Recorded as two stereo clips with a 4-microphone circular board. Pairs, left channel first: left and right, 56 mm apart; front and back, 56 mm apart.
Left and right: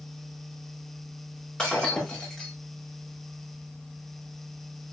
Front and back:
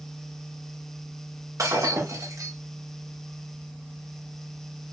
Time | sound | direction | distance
1.6 | breaking glass | 165° left | 6 m